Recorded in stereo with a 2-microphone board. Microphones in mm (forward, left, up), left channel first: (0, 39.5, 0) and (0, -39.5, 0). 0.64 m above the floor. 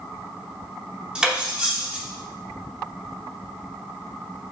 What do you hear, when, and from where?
1.1 s cutlery clinking: 10° right (ahead or behind), 0.6 m